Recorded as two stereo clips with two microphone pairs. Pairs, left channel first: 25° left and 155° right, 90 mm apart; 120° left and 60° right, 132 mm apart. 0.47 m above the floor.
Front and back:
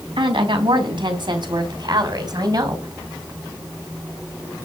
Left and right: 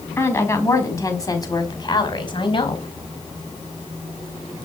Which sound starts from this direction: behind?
A woman speaking, at 0.2 s.